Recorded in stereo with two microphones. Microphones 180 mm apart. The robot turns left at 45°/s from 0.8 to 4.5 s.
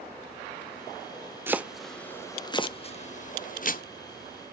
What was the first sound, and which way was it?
Chopping, 10° right (ahead or behind).